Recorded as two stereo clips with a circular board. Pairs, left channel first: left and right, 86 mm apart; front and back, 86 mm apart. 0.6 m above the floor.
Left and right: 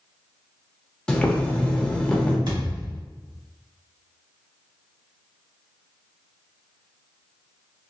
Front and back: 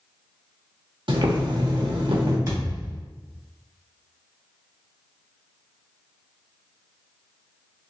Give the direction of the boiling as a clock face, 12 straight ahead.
6 o'clock.